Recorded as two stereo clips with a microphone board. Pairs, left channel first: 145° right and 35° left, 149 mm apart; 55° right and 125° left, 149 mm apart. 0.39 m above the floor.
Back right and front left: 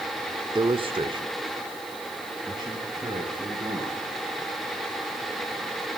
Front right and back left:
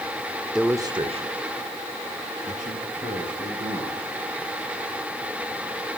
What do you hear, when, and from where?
0.6 s a man speaking: 40° left, 0.9 m; by 4.0 s 100° left, 5.5 m